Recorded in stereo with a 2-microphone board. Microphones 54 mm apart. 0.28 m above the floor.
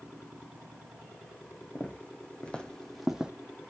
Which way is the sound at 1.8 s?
35° left (ahead or behind).